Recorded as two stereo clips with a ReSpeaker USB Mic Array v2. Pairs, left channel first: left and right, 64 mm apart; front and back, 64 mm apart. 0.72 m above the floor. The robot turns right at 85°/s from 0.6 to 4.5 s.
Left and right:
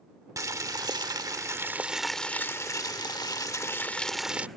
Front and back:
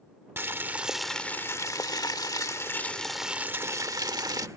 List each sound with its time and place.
0.4 s boiling: 125° right; by 4.5 s 155° right